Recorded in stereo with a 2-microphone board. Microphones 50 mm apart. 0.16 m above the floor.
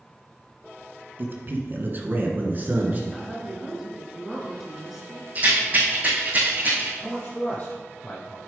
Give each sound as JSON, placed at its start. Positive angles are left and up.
{"t": 1.2, "sound": "a man speaking", "side_deg": -45, "distance_m": 1.7}
{"t": 3.1, "sound": "a woman speaking", "side_deg": 0, "distance_m": 2.0}
{"t": 5.3, "sound": "a rattle", "side_deg": -30, "distance_m": 4.0}
{"t": 7.0, "sound": "a man speaking", "side_deg": 35, "distance_m": 2.5}